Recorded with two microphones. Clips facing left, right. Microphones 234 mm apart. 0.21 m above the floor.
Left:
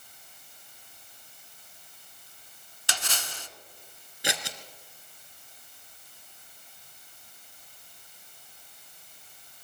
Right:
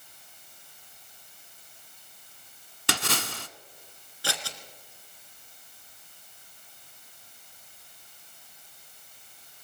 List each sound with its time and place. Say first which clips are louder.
2.9 s a splash: right 8 dB; 65° right (ahead or behind), 0.7 m
4.2 s scissors: left 2 dB; 20° left (ahead or behind), 1.4 m